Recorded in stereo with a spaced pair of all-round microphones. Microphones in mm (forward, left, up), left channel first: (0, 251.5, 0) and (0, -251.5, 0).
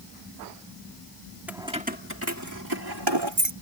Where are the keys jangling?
5° right (ahead or behind); by 3.5 s 55° right (ahead or behind).